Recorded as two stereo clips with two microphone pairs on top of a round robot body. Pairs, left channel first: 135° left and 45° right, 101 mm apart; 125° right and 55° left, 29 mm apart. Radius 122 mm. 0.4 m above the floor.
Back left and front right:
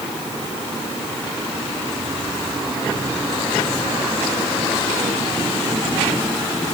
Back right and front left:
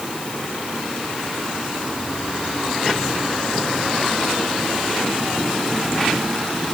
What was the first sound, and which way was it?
Only background noise.